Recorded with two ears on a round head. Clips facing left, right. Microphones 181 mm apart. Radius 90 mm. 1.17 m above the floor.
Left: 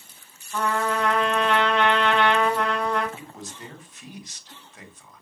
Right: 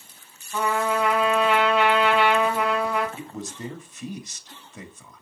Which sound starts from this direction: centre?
A trumpet, at 0.5 s.